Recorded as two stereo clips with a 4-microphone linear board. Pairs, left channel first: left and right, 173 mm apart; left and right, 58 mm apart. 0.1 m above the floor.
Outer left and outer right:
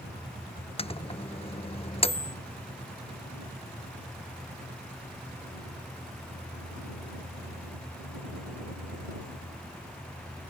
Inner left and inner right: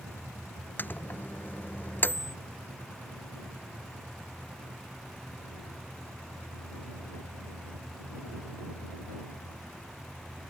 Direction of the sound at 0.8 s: 35° left (ahead or behind).